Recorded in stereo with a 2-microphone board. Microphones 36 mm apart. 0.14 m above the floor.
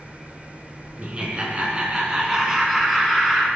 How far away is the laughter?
About 1.8 m.